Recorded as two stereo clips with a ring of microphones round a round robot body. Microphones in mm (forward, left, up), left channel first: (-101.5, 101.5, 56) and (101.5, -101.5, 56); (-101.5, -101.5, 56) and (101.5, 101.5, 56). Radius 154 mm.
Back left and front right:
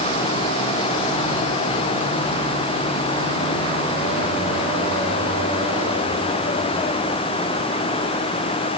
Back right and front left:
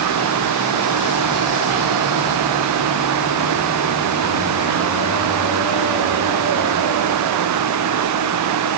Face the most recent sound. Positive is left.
No sound to turn to.